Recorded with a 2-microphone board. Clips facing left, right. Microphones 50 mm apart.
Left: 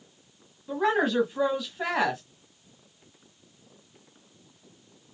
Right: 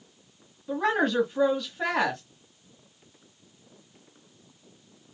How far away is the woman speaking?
About 1.1 m.